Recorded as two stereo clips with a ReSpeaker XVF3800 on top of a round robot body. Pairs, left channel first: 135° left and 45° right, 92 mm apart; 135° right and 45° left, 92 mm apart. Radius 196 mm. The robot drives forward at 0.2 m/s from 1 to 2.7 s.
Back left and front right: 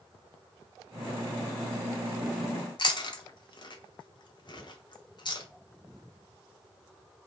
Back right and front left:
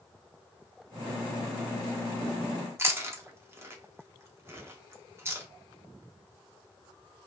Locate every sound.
2.8 s chewing: 105° left, 0.9 m